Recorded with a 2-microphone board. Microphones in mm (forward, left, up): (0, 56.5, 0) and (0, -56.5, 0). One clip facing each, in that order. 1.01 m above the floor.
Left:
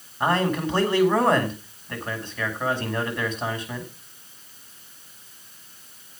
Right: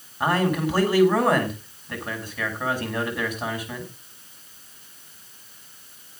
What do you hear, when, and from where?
0.2 s a man speaking: 10° right (ahead or behind), 7 m